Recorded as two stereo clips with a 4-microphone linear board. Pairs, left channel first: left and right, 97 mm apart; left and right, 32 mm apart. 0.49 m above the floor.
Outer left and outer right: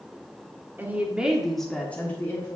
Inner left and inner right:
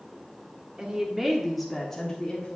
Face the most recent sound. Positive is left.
turn(degrees=30)  # may be behind; listen again after turning